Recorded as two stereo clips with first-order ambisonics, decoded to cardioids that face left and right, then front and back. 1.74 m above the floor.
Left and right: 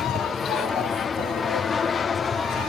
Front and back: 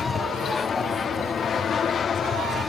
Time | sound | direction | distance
0.0 | an aircraft | 45° left | ?